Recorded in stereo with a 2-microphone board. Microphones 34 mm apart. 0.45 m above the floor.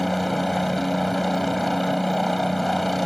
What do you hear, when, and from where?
0.0 s a helicopter: centre (ahead or behind)